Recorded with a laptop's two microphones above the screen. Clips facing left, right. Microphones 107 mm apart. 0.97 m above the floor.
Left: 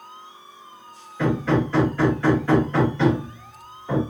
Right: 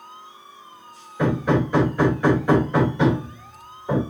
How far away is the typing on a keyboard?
I don't hear typing on a keyboard.